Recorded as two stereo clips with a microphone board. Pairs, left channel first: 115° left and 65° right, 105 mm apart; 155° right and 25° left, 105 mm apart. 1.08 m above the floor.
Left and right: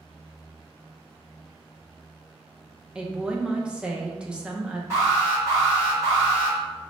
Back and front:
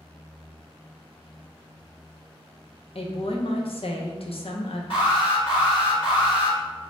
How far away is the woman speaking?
About 0.6 m.